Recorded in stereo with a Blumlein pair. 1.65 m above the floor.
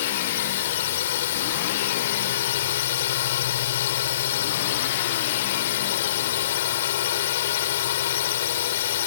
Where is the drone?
55° left.